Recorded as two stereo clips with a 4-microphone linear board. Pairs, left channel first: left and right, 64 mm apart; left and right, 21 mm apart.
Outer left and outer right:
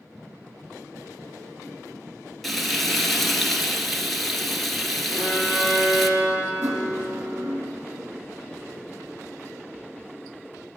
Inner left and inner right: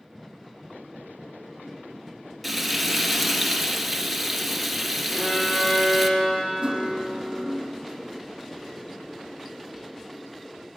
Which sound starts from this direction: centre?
Frying, at 2.4 s.